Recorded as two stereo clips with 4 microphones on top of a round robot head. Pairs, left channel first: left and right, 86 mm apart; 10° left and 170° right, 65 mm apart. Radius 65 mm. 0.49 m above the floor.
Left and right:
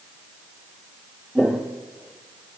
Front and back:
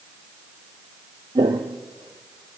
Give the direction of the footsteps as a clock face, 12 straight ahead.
6 o'clock.